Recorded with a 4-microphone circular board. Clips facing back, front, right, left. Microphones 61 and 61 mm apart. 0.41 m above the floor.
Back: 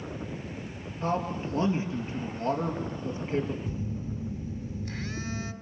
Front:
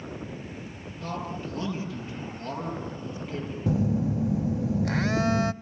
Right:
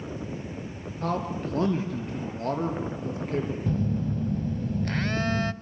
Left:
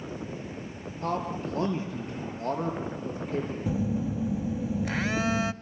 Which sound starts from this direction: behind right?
A man speaking, at 1.0 s.